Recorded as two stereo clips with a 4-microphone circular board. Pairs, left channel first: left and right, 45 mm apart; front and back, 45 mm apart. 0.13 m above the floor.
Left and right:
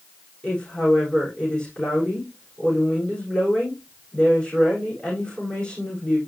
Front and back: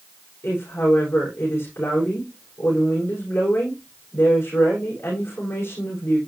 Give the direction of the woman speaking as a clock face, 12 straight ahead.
11 o'clock.